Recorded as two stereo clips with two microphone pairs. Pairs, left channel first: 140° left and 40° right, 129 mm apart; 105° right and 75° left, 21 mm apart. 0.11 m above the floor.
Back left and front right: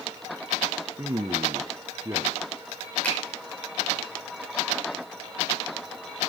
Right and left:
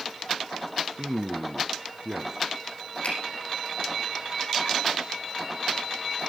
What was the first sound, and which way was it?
A man speaking, 10° left.